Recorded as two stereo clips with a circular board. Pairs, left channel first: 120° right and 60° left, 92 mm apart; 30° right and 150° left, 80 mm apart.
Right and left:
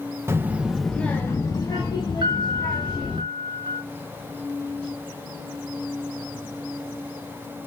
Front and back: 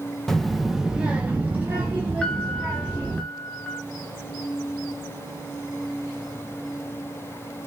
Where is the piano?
45° left, 0.6 m.